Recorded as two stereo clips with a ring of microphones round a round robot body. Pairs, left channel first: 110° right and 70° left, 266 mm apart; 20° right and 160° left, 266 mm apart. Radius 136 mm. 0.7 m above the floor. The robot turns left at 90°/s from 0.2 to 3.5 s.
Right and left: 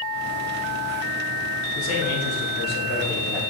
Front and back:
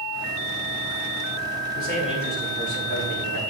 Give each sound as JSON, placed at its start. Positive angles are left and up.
{"t": 1.8, "sound": "a man speaking", "azimuth_deg": -60, "distance_m": 3.0}